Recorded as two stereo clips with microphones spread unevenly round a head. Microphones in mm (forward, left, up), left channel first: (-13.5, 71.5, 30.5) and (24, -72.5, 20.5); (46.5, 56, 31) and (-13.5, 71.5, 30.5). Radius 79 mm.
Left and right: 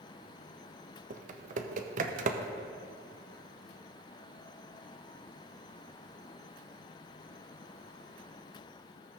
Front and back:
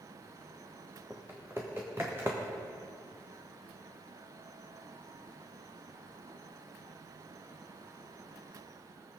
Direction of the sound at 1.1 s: 120° right.